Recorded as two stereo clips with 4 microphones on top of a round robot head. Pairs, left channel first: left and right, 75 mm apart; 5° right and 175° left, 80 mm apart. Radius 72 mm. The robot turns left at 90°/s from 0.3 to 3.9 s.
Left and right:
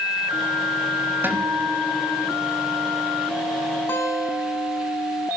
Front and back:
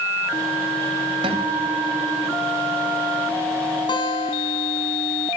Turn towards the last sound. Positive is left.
turn(degrees=20)